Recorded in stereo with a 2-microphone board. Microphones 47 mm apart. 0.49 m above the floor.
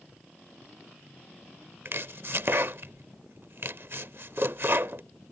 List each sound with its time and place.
1.9 s chopping: 55° right (ahead or behind)